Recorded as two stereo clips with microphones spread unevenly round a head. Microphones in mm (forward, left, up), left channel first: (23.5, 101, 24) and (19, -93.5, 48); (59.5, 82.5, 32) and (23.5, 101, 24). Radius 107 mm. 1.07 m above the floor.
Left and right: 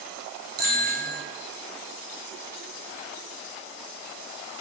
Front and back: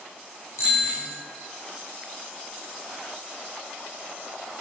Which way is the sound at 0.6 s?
55° right.